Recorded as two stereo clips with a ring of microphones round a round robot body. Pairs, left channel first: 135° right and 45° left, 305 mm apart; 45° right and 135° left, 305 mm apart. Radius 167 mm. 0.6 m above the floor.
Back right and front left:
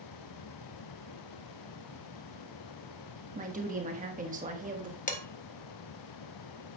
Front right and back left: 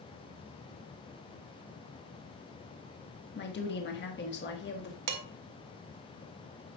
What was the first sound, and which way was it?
A woman speaking, 10° right.